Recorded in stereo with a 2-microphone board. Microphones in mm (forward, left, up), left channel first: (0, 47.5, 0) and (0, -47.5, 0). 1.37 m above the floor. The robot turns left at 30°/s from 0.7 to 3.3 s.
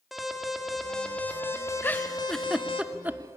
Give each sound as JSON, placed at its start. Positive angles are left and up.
{"t": 0.1, "sound": "an alarm", "azimuth_deg": 180, "distance_m": 2.0}
{"t": 1.8, "sound": "a giggle", "side_deg": 20, "distance_m": 0.6}